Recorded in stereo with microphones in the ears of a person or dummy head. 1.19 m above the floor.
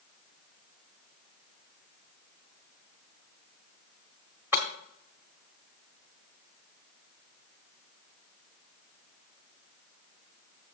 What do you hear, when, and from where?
4.5 s breaking glass: 5° right (ahead or behind), 1.0 m